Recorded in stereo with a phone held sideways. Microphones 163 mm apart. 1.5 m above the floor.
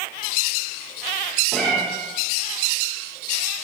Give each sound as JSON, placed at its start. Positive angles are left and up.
{"t": 1.5, "sound": "a cat meowing", "side_deg": 5, "distance_m": 0.7}